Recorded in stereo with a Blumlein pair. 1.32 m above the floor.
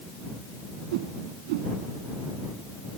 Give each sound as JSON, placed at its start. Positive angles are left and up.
{"t": 0.9, "sound": "a whoosh", "azimuth_deg": -50}